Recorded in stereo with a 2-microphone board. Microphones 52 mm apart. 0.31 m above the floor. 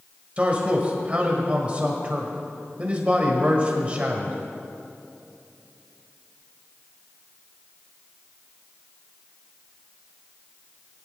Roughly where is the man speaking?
Right.